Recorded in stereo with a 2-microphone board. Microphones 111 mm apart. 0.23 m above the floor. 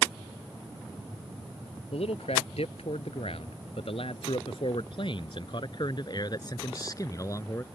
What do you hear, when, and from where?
1.9 s a man speaking: 75° left (ahead or behind); by 7.6 s 30° left (ahead or behind)